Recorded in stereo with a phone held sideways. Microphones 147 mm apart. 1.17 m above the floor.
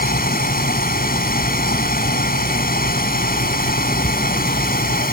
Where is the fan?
90° left.